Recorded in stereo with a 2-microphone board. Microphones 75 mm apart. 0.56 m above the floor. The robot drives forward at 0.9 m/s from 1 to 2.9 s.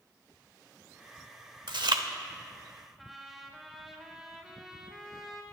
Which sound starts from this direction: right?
Chewing, at 1.7 s.